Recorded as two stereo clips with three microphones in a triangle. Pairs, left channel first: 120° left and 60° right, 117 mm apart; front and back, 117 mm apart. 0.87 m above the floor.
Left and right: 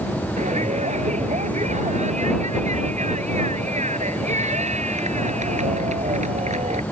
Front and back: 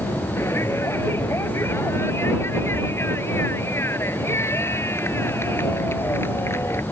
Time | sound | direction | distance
0.4 | a shout | 70° right | ?